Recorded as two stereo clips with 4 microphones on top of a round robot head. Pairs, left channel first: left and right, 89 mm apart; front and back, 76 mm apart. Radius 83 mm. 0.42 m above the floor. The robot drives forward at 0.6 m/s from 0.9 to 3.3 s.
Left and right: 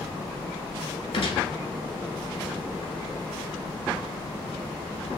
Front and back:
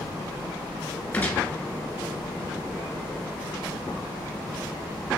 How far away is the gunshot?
About 1.1 m.